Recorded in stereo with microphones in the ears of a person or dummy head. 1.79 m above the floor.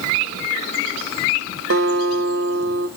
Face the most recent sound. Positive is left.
turn(degrees=-60)  # may be behind; listen again after turning